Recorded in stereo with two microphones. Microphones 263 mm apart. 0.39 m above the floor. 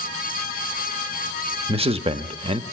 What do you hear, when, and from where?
1.7 s a man speaking: 20° right (ahead or behind), 0.9 m